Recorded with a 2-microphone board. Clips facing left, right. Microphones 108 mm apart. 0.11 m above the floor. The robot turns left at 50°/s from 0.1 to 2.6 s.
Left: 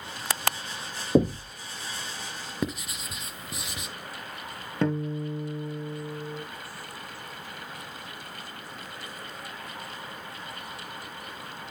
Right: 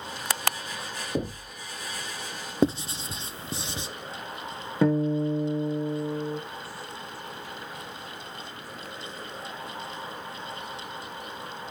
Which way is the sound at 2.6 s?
30° right (ahead or behind).